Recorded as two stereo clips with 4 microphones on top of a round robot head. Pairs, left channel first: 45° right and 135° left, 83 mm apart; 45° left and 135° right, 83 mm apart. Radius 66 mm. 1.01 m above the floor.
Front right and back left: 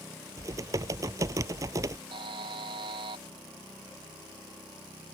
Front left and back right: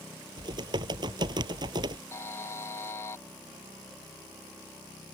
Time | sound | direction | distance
0.4 | typing on a keyboard | 175° right | ?
2.1 | a buzzer | 105° left | ?